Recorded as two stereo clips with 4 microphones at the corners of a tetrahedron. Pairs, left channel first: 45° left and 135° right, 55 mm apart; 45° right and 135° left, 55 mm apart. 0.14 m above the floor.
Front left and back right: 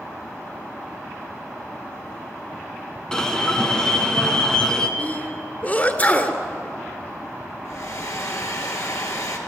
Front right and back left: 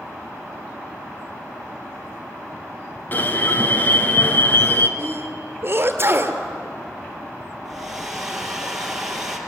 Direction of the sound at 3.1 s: 25° right.